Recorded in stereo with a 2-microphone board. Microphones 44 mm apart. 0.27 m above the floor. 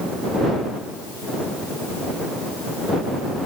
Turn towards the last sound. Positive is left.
No sound to turn to.